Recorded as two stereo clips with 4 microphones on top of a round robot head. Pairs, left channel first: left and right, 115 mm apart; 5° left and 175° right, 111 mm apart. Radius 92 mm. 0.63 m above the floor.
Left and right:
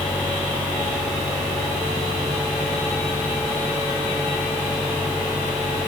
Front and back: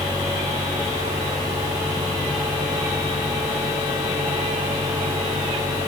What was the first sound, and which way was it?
Only background noise.